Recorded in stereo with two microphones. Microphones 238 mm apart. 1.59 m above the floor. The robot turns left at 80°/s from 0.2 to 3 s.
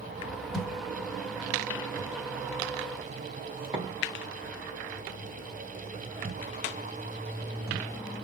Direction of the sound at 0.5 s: Centre (ahead or behind).